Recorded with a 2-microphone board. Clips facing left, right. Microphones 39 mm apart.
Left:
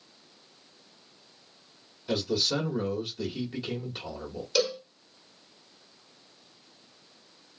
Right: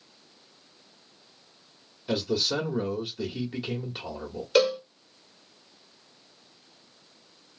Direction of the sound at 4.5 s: 40° right (ahead or behind).